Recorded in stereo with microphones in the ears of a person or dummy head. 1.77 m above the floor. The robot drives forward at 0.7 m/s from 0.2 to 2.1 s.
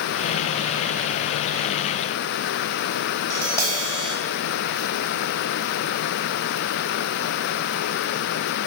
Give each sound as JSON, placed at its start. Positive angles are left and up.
{"t": 3.3, "sound": "tapping", "side_deg": 20, "distance_m": 1.0}